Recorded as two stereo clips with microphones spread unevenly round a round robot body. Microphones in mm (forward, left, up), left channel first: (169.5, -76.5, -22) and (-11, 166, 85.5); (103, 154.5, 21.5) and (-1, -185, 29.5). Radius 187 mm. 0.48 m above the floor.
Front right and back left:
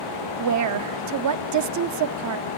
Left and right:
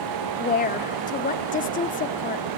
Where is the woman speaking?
120° left, 0.9 m.